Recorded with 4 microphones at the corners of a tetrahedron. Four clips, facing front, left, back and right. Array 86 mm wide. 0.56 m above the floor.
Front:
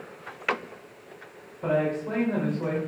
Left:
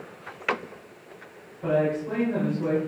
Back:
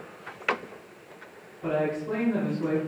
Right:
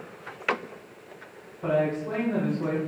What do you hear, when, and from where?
1.6 s a woman speaking: 15° right, 3.5 m